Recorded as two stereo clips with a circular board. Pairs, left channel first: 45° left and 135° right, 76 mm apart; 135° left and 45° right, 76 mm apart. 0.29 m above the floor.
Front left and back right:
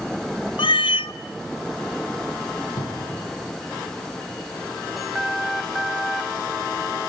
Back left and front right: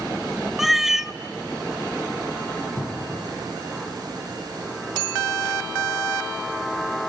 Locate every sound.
0.6 s a cat meowing: 40° left, 0.6 m
2.8 s a cupboard door: 65° left, 7 m